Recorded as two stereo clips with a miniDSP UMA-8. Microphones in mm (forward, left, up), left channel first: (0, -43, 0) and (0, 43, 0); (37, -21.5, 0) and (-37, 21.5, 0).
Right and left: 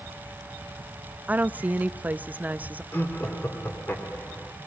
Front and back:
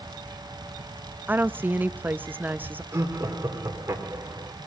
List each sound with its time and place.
1.3 s a woman speaking: 125° left, 0.5 m
2.9 s laughter: 155° right, 3 m